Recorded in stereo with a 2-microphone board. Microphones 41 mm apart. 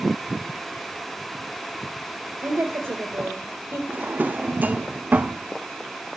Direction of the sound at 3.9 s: 45° right (ahead or behind).